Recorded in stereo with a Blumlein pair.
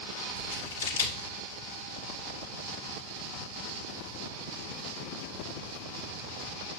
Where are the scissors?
70° left, 1.6 m.